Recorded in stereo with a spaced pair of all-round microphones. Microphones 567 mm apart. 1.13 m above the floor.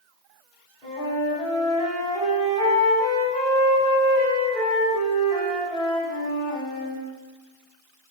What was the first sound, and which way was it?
A flute, 10° left (ahead or behind).